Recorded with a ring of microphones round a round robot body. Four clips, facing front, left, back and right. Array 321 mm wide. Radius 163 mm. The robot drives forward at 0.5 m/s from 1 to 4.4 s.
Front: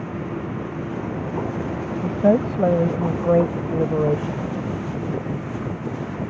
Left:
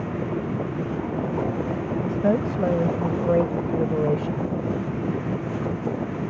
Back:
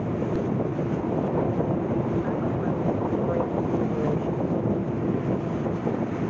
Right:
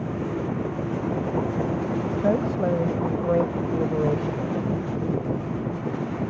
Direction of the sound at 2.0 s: 10° left.